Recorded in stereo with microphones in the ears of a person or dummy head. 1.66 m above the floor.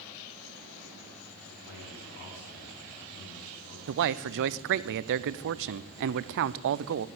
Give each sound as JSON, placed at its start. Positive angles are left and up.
{"t": 1.6, "sound": "a man speaking", "side_deg": 60, "distance_m": 7.5}
{"t": 3.9, "sound": "a man speaking", "side_deg": -60, "distance_m": 0.5}